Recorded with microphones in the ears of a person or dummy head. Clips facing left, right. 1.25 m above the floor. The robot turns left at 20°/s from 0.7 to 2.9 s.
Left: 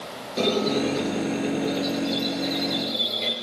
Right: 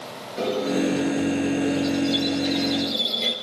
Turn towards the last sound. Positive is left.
turn(degrees=5)